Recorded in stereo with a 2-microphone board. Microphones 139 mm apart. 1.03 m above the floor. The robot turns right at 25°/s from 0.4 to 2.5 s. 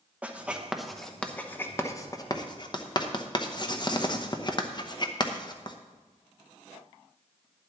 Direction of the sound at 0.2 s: 10° right (ahead or behind).